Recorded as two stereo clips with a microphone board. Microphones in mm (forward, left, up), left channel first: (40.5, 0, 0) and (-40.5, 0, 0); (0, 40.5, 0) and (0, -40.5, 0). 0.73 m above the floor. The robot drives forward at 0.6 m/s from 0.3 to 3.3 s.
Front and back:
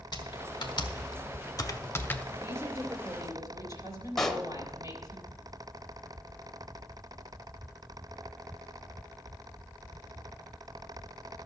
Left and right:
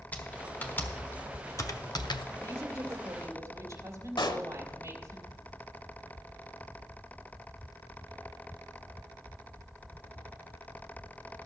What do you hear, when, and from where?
0.1 s typing on a keyboard: 20° left, 1.4 m; by 2.3 s 75° left, 0.5 m
2.4 s a woman speaking: 130° right, 2 m; by 5.2 s 140° right, 2.5 m
4.2 s a pop: 85° left, 0.9 m